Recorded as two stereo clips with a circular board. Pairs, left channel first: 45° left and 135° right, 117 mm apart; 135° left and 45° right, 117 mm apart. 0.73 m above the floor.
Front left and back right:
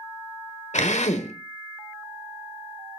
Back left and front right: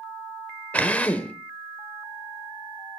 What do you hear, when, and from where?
0.7 s a drill: 55° left, 1.3 m